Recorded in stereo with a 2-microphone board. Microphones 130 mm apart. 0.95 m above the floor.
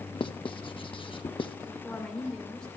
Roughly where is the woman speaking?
Centre.